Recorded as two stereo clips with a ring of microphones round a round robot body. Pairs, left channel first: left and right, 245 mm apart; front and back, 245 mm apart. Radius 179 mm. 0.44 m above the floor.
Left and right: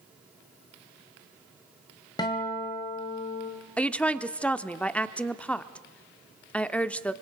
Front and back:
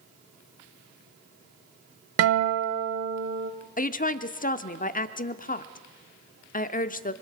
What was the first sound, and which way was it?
A guitar, 165° left.